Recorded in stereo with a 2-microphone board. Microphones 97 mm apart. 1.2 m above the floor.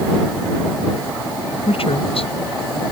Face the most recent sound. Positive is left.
turn(degrees=80)